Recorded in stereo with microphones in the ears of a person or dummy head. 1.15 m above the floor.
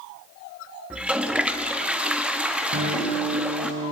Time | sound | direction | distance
0.9 | a toilet flushing | 5° right (ahead or behind) | 0.9 m
2.7 | a guitar | 85° right | 9.5 m